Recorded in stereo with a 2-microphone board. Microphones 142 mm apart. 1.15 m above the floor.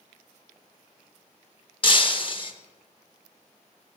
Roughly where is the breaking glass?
Left.